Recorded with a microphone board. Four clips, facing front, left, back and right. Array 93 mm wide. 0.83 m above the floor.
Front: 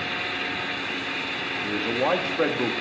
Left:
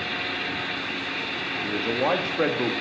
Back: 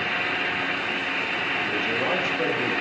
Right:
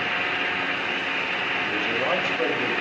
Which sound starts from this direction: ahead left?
A man speaking, at 1.6 s.